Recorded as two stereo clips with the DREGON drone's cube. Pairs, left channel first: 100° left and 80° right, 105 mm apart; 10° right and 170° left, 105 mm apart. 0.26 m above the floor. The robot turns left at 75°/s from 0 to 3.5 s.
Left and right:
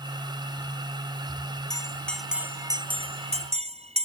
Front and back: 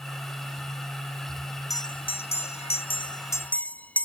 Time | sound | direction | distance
1.7 | a bell | 50° left | ?